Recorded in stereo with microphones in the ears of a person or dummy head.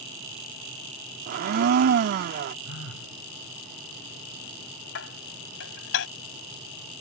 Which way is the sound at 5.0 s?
80° left.